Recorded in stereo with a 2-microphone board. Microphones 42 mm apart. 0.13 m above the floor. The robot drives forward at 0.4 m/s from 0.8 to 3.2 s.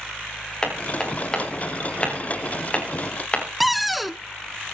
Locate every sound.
0.6 s hammering: 15° left (ahead or behind), 7 m; by 3.5 s 20° left (ahead or behind), 6 m
3.6 s a cupboard door: centre (ahead or behind), 0.5 m